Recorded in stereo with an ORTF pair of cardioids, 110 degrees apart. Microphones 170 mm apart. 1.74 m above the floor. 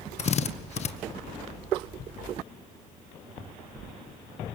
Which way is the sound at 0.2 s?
40° left.